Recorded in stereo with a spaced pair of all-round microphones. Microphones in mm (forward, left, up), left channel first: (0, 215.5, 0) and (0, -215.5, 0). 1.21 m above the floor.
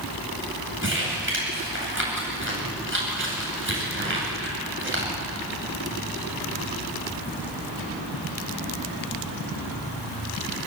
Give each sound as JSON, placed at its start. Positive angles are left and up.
{"t": 0.8, "sound": "crumpling", "side_deg": -25, "distance_m": 9.0}